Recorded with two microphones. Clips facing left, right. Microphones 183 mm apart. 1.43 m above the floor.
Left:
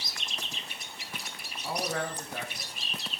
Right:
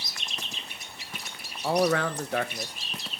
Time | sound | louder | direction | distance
1.6 | a man speaking | right 9 dB | 80° right | 1.4 m